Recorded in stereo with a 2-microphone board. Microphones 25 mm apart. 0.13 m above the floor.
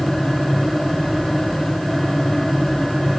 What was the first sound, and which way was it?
Only background noise.